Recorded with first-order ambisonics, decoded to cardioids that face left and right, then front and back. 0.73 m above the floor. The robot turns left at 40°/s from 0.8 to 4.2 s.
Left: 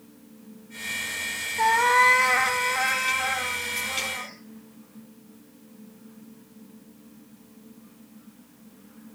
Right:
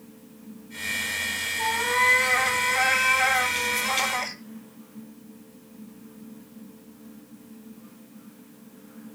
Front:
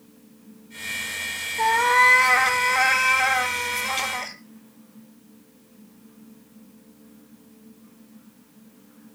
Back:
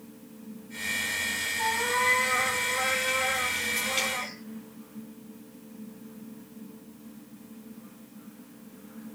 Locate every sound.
1.6 s a cat meowing: 50° left, 1.1 m; by 4.4 s 55° right, 1.1 m